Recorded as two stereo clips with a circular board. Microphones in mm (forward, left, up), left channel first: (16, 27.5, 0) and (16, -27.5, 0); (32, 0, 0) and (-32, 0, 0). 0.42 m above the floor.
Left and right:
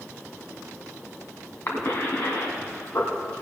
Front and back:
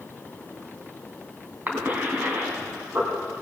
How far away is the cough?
About 3 m.